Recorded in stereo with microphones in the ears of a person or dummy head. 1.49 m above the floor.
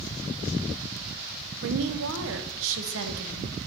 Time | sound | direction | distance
1.6 | a woman speaking | 75° right (ahead or behind) | 0.9 m